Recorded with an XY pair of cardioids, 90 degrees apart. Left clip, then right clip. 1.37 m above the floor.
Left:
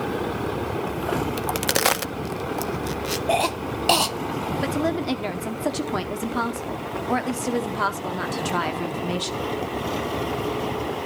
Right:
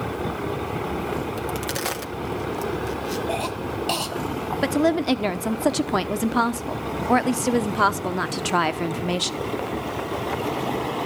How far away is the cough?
About 0.7 m.